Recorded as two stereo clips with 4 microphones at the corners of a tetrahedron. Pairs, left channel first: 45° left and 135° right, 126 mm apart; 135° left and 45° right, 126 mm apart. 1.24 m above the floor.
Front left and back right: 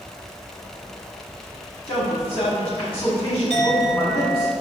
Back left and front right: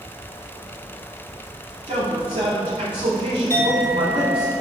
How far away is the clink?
About 3 m.